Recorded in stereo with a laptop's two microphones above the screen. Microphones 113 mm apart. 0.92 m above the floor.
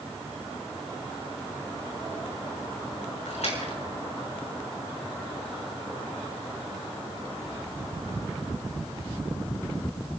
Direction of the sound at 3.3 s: 75° left (ahead or behind).